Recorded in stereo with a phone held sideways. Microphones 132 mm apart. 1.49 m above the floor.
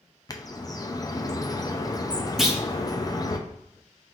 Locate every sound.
0.3 s a bird: 30° left (ahead or behind), 0.5 m
2.4 s a clunk: centre (ahead or behind), 0.7 m